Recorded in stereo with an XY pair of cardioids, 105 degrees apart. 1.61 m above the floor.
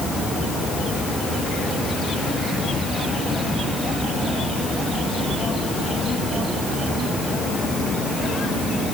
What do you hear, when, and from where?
Only background noise.